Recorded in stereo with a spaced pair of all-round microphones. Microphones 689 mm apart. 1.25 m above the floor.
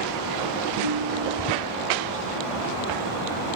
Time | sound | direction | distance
0.8 | a ringtone | 50° right (ahead or behind) | 6.5 m